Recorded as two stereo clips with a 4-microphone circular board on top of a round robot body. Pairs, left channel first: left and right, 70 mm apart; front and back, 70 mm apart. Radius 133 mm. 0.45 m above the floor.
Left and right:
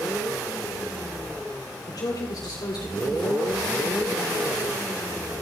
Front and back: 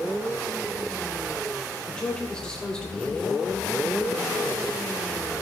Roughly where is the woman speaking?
Left.